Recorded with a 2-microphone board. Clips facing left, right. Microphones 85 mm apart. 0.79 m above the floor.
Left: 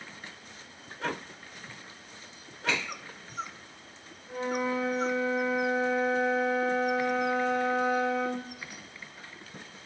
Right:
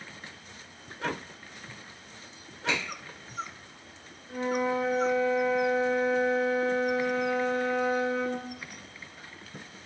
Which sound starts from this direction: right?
A finger snap, at 2.7 s.